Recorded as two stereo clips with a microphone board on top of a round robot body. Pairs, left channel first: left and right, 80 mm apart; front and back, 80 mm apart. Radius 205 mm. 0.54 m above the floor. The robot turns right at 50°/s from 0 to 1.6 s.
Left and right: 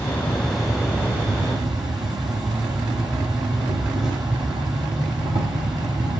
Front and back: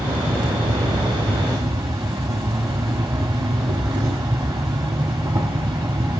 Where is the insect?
150° left, 0.8 m; by 6.2 s 130° right, 0.8 m.